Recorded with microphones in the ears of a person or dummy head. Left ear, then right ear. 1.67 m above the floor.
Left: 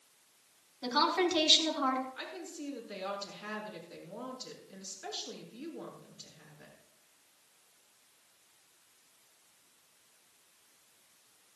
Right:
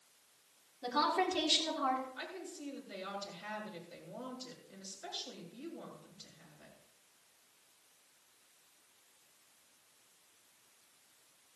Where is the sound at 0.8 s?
40° left (ahead or behind), 4 m.